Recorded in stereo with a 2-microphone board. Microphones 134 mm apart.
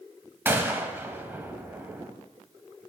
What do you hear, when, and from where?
0.5 s a gunshot: 15° right (ahead or behind), 0.7 m